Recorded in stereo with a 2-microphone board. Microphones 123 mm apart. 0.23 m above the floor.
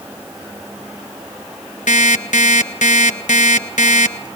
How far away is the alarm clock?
About 1.2 m.